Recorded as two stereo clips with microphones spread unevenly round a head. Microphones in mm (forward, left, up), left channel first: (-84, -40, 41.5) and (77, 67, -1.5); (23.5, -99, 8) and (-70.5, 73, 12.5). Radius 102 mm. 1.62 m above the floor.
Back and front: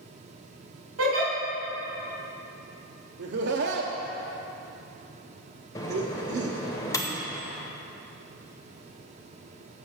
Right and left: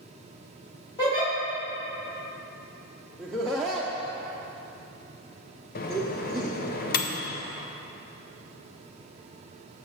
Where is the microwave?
90° right, 0.6 m.